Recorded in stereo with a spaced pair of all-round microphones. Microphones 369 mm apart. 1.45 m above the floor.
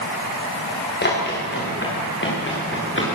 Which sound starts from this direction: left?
Running footsteps, at 1.0 s.